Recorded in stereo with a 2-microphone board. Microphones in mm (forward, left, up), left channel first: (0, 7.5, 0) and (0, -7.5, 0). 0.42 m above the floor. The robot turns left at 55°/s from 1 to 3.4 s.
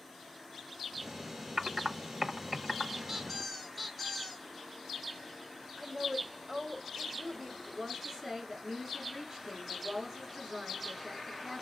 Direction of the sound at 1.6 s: 70° right (ahead or behind).